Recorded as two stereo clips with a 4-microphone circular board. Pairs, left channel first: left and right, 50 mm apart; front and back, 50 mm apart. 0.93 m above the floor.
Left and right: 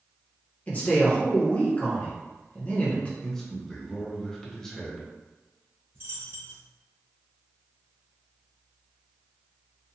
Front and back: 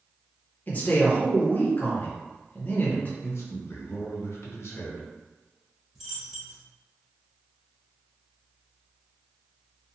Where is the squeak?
I don't hear a squeak.